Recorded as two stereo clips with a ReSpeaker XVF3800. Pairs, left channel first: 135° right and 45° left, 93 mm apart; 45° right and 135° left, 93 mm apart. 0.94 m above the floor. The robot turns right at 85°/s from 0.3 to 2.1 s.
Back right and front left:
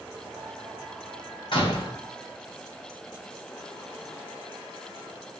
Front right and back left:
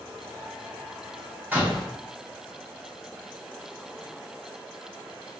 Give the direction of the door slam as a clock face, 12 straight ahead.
5 o'clock.